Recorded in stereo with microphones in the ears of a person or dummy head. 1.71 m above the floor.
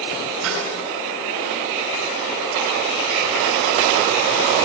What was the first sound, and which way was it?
A snare drum, 85° right.